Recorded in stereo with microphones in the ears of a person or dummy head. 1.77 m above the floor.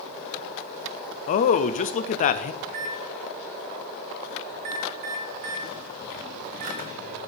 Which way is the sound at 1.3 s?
40° left (ahead or behind).